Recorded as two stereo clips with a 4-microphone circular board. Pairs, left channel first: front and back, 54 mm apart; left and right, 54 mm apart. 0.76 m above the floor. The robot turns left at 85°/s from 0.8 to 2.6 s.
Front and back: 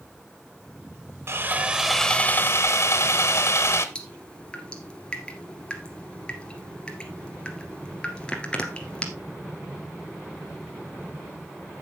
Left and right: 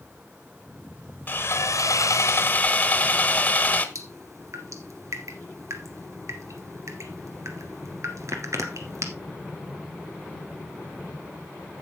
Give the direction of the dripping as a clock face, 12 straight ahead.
2 o'clock.